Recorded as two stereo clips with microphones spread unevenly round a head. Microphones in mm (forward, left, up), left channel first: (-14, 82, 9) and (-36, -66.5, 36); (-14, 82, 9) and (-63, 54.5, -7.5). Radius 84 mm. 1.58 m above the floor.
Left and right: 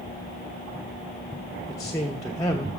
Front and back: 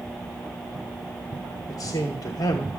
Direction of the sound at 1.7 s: 10° left.